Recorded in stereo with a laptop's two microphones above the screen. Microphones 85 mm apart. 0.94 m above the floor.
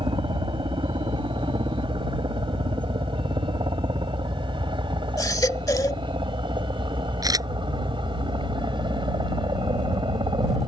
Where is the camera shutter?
45° right (ahead or behind).